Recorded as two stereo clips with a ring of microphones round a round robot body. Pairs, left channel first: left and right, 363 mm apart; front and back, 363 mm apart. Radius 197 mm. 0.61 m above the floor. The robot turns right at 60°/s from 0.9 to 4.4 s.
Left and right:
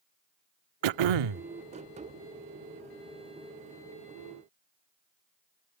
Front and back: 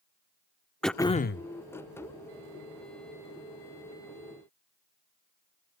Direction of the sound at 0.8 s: 90° right.